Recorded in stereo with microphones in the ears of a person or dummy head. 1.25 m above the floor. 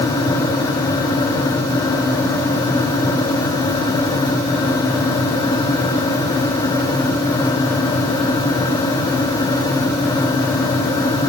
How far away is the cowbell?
I don't hear a cowbell.